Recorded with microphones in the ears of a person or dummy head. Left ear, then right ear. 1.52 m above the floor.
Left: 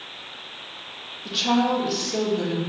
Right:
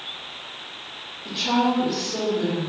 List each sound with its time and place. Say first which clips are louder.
1.2 s a woman speaking: even; 70° left (ahead or behind), 1.8 m